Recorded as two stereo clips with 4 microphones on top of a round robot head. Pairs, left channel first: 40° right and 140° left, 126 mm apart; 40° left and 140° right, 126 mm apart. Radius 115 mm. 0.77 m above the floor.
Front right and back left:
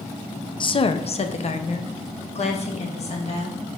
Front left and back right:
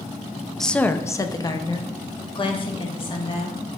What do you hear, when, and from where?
0.6 s a woman speaking: 50° right, 0.6 m; by 3.6 s 5° right, 2 m